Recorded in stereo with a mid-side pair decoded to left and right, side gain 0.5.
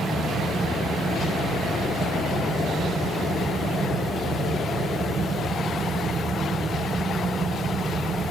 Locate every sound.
0.0 s a fan: 25° right, 2.5 m